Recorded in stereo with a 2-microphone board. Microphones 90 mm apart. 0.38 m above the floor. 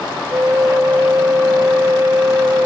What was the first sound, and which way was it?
A flute, 30° right (ahead or behind).